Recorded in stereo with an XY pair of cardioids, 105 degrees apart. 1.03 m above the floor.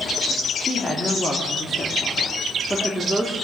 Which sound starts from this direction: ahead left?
A woman speaking, at 0.6 s.